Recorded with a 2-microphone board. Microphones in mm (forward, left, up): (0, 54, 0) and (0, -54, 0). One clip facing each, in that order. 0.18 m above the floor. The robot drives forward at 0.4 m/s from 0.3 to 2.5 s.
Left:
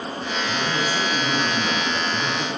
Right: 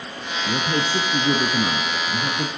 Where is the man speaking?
45° right (ahead or behind), 1.8 m; by 2.5 s 30° right (ahead or behind), 2 m.